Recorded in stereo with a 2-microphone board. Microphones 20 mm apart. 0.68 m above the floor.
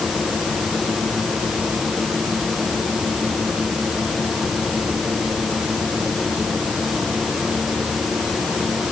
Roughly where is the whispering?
No whispering in this recording.